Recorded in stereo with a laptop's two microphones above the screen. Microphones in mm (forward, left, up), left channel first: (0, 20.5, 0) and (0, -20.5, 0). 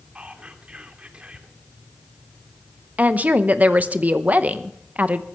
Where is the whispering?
25° right (ahead or behind), 2.5 m.